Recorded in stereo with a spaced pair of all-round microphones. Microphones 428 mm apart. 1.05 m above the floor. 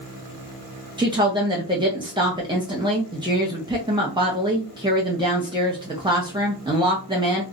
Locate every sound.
1.0 s a woman speaking: 10° right (ahead or behind), 0.5 m